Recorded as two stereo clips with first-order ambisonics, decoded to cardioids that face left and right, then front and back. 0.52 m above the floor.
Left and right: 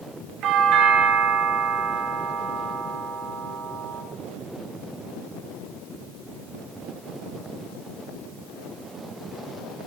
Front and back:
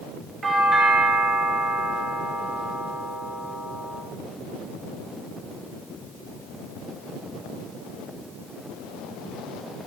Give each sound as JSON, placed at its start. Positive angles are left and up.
{"t": 0.4, "sound": "a doorbell", "azimuth_deg": -115, "distance_m": 2.5}